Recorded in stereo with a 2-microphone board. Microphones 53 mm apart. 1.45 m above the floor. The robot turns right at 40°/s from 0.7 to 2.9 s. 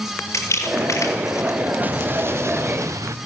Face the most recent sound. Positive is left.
turn(degrees=-105)